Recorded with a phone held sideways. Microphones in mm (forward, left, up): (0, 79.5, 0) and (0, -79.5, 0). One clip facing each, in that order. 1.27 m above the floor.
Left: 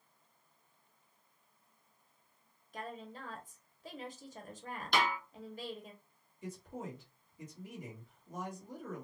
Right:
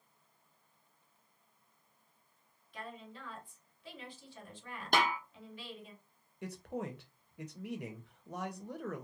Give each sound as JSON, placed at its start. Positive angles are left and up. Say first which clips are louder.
{"t": 2.7, "sound": "a woman speaking", "louder": "left 3 dB", "side_deg": 40, "distance_m": 0.9}
{"t": 4.9, "sound": "a snare drum", "louder": "right 1 dB", "side_deg": -50, "distance_m": 0.8}
{"t": 6.4, "sound": "a man speaking", "louder": "right 4 dB", "side_deg": -70, "distance_m": 0.7}